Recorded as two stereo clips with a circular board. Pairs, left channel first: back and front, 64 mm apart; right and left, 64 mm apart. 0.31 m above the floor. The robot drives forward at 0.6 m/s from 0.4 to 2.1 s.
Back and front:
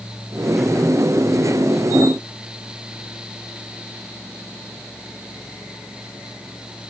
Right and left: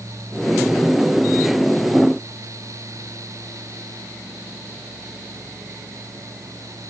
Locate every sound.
Only background noise.